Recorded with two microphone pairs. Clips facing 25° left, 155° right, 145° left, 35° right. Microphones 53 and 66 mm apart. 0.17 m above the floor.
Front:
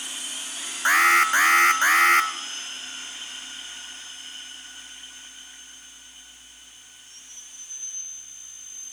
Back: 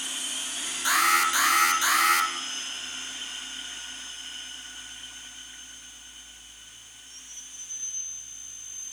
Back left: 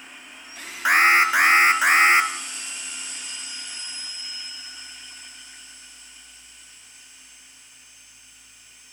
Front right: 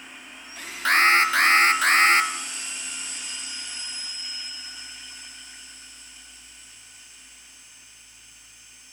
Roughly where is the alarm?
Left.